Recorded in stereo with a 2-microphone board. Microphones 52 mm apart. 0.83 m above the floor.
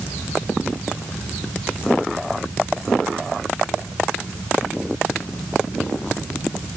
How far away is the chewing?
I don't hear chewing.